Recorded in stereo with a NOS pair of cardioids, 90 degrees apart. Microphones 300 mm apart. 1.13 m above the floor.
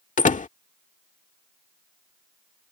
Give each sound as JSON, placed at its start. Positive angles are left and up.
{"t": 0.2, "sound": "a door slam", "azimuth_deg": 25}